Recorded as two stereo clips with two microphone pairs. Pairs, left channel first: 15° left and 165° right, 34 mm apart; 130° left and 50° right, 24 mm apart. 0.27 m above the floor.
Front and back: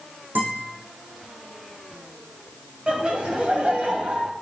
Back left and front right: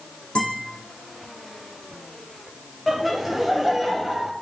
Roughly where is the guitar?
Behind.